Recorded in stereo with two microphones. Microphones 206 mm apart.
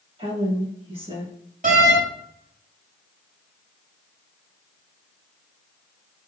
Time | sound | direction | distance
0.2 | a woman speaking | 30° right (ahead or behind) | 1.7 m
1.6 | a door slam | 40° right (ahead or behind) | 2 m